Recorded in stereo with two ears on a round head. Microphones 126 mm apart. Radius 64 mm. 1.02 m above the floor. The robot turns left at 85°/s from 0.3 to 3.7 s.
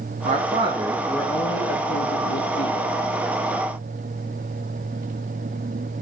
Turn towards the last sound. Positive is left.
turn(degrees=-45)